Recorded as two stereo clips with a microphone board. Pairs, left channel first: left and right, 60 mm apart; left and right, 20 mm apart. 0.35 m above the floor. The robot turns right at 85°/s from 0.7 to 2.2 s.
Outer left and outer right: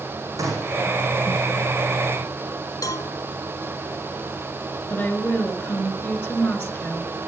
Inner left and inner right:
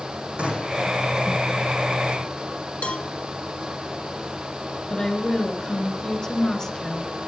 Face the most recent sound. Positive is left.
turn(degrees=35)  # may be behind; listen again after turning